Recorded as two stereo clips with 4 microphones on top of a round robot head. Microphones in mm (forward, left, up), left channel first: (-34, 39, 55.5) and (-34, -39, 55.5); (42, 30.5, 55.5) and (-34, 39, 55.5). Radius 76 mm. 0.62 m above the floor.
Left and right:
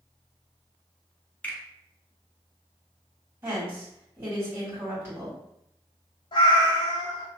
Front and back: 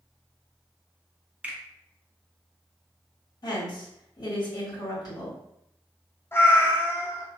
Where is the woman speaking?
35° right, 1.9 m.